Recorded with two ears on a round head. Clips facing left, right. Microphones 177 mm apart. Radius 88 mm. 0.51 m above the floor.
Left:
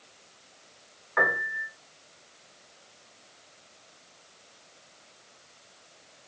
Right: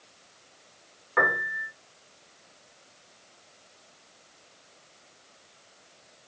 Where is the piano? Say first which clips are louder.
Right 1 dB; 40° right (ahead or behind), 1.3 m.